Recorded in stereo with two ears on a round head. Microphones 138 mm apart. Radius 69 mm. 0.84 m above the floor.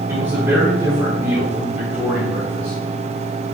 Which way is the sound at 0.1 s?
15° right (ahead or behind).